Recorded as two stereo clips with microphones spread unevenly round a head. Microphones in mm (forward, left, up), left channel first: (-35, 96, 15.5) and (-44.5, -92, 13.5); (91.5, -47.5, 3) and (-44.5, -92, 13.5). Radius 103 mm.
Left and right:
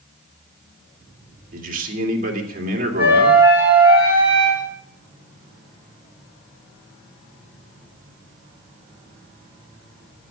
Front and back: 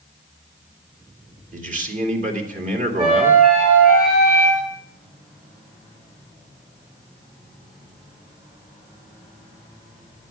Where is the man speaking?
135° right, 3 m.